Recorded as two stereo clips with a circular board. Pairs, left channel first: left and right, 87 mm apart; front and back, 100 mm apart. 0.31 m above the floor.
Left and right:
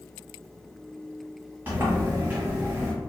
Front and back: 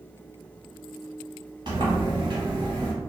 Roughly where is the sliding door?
Behind right.